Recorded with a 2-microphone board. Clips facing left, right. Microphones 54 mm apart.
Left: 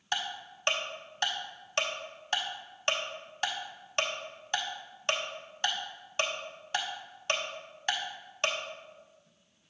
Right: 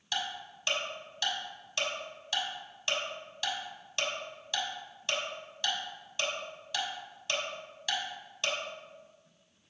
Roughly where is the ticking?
Left.